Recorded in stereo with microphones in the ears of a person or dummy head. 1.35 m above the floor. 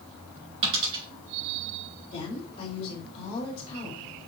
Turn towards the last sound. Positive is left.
turn(degrees=50)  # may be behind; listen again after turning